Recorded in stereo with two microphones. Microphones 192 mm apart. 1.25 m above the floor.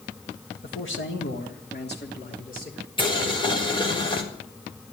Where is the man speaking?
80° left, 1.7 m; by 2.9 s 45° left (ahead or behind), 4.5 m.